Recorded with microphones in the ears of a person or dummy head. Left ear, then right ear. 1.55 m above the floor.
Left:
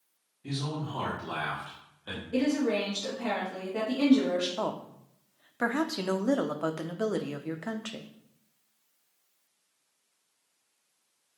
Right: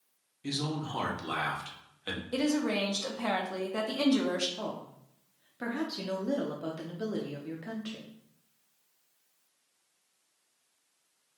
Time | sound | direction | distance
0.4 | a man speaking | 70° right (ahead or behind) | 1.4 m
2.3 | a woman speaking | 70° right (ahead or behind) | 1.5 m
4.6 | a woman speaking | 40° left (ahead or behind) | 0.5 m